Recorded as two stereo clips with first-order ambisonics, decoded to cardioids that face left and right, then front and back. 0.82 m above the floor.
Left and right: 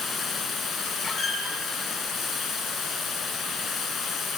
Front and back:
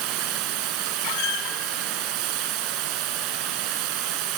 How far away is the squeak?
About 2.5 m.